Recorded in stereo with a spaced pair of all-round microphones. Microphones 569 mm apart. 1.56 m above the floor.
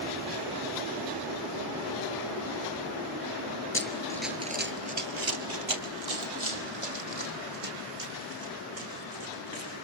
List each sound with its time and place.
3.7 s running footsteps: 20° left (ahead or behind), 1.7 m; by 9.8 s 75° right (ahead or behind), 8 m